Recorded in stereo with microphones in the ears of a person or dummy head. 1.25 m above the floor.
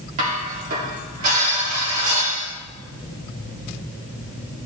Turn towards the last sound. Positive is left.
turn(degrees=-45)  # may be behind; listen again after turning